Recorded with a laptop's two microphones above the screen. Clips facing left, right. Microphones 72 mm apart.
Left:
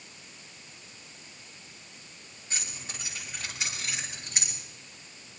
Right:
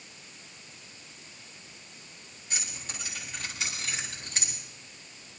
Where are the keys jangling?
30° left (ahead or behind), 8 m; by 4.5 s 20° left (ahead or behind), 9 m.